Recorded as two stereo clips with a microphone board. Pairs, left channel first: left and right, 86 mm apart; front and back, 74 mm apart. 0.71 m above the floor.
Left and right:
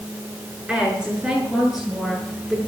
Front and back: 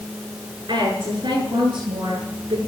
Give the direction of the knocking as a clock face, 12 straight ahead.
I don't hear knocking.